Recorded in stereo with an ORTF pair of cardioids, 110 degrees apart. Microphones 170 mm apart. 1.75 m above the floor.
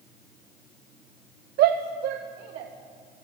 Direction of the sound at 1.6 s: 65° right.